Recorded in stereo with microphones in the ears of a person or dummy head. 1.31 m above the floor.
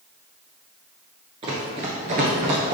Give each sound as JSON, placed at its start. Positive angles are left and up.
{"t": 1.4, "sound": "running footsteps", "side_deg": -25, "distance_m": 1.3}